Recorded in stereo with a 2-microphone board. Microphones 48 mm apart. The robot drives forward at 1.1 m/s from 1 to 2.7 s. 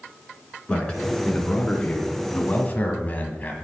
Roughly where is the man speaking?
Centre.